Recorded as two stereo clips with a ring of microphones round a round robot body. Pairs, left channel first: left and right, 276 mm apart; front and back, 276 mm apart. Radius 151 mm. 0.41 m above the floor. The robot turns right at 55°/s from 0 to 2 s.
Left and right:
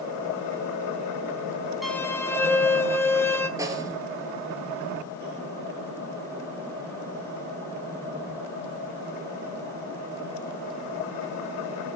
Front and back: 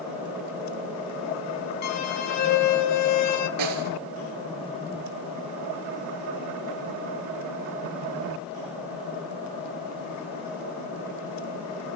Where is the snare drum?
170° right, 1.5 m.